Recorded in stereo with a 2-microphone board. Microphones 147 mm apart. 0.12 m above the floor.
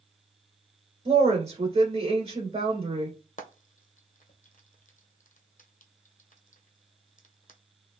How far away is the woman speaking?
About 1.8 m.